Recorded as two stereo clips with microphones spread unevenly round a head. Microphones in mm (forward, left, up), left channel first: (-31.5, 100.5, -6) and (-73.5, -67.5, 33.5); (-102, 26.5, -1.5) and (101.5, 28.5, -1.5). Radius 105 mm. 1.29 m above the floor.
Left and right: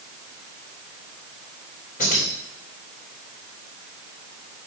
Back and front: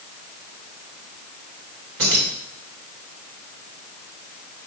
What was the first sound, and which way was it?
Keys jangling, 20° left.